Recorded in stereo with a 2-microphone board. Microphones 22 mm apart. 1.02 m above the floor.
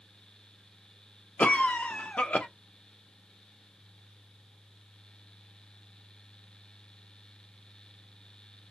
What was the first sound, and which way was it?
A cough, 65° left (ahead or behind).